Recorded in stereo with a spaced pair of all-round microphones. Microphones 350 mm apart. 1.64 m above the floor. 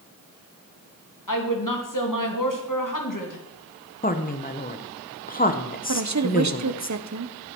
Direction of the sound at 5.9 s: 50° right (ahead or behind).